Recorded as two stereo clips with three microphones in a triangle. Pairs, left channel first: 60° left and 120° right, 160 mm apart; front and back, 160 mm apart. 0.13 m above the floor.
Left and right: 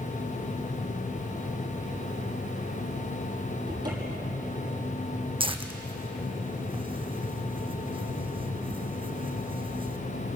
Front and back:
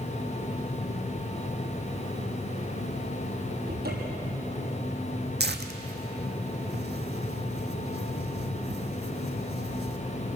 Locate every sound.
3.7 s a cupboard door: 175° left, 6 m
5.4 s tearing paper: straight behind, 1.4 m